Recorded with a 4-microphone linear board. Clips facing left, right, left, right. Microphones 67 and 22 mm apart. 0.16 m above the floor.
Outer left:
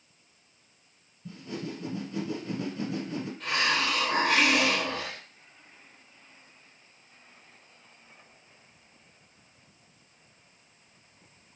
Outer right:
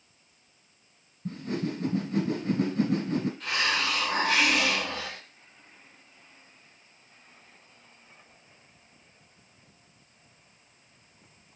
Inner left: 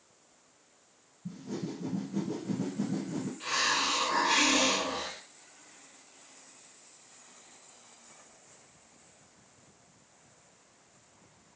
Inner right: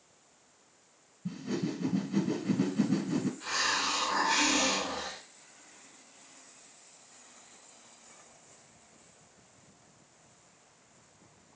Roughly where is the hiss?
Left.